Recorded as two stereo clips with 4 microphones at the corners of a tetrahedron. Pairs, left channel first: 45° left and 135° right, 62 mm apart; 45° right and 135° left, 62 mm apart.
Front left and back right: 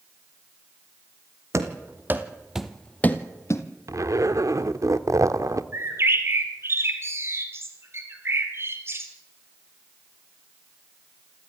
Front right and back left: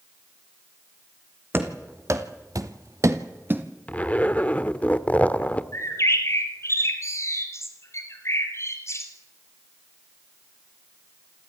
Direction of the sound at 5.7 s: 85° right.